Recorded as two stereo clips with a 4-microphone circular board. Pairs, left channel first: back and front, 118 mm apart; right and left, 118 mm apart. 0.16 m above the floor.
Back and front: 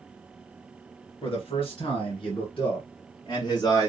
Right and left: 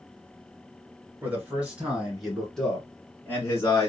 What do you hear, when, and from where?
1.2 s a man speaking: 160° left, 2.5 m; by 3.9 s 140° right, 2 m